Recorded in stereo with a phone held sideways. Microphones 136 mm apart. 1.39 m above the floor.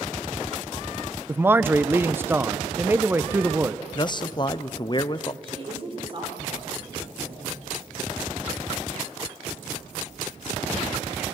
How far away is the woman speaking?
About 4 m.